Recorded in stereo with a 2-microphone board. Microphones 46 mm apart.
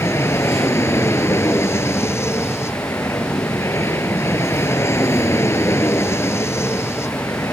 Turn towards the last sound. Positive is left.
turn(degrees=70)  # may be behind; listen again after turning